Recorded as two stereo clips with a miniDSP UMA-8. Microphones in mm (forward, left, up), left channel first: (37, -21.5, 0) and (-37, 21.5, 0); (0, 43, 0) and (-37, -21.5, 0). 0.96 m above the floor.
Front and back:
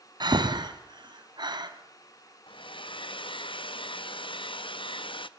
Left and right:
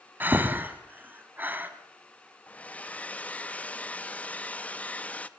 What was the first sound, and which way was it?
Breathing, 175° left.